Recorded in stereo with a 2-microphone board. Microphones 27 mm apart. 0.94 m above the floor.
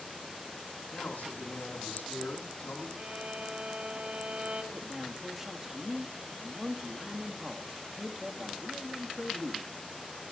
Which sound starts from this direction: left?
A man speaking, at 0.9 s.